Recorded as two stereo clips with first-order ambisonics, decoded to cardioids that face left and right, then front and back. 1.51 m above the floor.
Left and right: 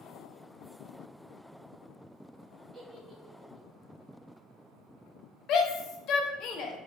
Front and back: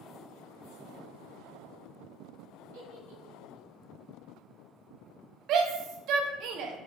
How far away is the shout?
About 1.2 m.